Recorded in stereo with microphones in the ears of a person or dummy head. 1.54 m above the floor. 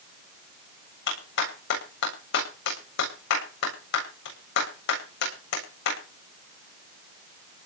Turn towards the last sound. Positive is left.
turn(degrees=65)  # may be behind; listen again after turning